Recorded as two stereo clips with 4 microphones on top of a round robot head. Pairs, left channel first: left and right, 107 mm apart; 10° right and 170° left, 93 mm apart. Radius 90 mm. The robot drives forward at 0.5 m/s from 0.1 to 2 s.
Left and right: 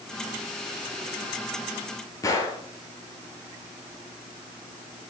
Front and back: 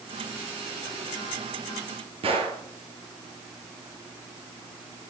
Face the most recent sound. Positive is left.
turn(degrees=150)